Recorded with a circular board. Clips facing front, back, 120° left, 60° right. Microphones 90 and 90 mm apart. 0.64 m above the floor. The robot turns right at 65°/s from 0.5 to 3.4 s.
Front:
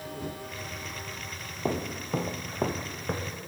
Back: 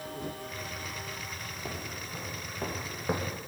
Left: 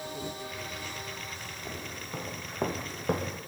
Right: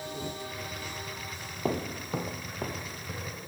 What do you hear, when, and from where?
1.6 s footsteps: 45° right, 1.4 m; by 3.4 s 120° left, 1.9 m